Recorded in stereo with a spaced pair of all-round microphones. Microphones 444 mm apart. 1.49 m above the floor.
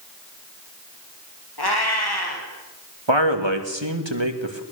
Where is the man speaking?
75° right (ahead or behind), 2.5 m.